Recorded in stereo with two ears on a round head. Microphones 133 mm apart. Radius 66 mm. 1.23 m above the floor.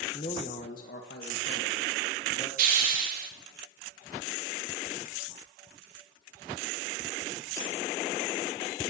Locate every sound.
0.1 s a man speaking: 30° left (ahead or behind), 1.2 m; by 2.5 s 80° left, 3.5 m
2.6 s a hiss: 65° right (ahead or behind), 2.5 m